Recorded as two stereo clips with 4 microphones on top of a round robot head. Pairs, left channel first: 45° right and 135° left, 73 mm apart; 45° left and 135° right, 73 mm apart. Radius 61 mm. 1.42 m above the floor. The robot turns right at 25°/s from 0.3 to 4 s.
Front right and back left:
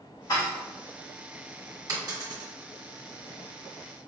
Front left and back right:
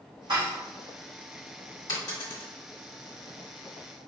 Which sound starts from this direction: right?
Dishes clattering, at 0.3 s.